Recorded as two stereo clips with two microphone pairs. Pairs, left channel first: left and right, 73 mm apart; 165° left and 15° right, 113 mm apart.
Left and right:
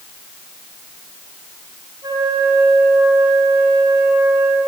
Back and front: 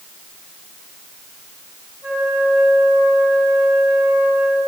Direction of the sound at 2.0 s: 80° right.